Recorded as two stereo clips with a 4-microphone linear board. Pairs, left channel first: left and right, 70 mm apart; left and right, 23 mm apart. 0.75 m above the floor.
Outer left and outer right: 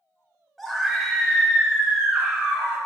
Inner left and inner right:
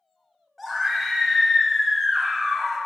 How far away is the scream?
About 3 m.